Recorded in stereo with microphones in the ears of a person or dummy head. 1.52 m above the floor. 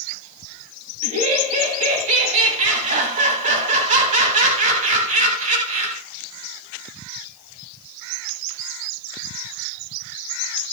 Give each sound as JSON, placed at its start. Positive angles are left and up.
{"t": 1.0, "sound": "laughter", "side_deg": -45, "distance_m": 2.0}